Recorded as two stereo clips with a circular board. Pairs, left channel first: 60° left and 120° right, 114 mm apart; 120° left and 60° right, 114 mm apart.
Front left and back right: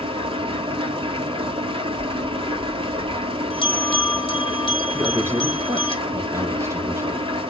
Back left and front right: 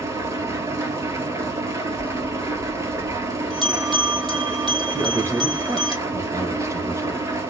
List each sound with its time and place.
0.0 s an engine running: 115° right, 1.0 m
2.0 s a bell: 35° left, 1.8 m
4.9 s a man speaking: 85° right, 1.2 m